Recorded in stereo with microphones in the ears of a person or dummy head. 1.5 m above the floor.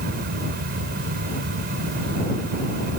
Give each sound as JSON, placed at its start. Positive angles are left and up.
{"t": 0.0, "sound": "a fan", "side_deg": -55}